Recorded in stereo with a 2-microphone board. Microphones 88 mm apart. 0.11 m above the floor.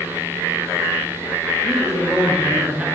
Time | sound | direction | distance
1.6 | a man speaking | centre (ahead or behind) | 2 m